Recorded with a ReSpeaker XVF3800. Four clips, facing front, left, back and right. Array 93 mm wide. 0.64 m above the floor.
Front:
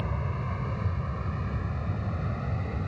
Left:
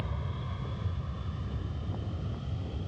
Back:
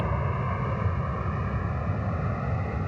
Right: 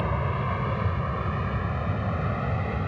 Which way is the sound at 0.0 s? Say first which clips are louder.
Right 12 dB, back 5 dB; 120° right.